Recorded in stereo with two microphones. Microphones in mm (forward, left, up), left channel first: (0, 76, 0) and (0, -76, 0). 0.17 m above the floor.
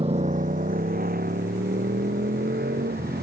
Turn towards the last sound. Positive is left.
turn(degrees=-80)